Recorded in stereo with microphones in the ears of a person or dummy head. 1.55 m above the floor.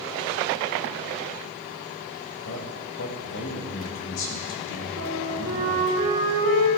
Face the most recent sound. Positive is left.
turn(degrees=-75)  # may be behind; listen again after turning